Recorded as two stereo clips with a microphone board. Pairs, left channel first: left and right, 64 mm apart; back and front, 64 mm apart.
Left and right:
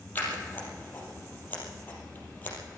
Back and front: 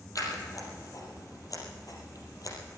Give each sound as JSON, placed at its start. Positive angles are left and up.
{"t": 0.1, "sound": "scissors", "azimuth_deg": 150, "distance_m": 4.0}